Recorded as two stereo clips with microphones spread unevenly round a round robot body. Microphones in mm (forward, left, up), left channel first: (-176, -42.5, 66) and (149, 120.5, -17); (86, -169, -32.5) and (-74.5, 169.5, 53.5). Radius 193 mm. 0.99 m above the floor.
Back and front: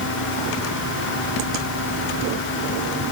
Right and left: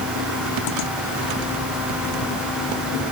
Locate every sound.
Only background noise.